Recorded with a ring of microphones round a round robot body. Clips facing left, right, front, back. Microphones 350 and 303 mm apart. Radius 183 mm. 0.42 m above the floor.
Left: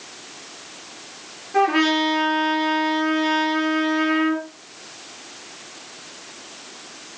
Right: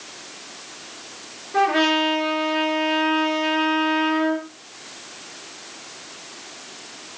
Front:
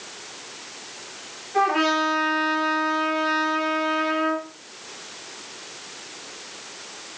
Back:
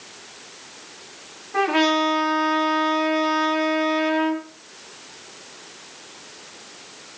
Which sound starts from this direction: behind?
A trumpet, at 1.5 s.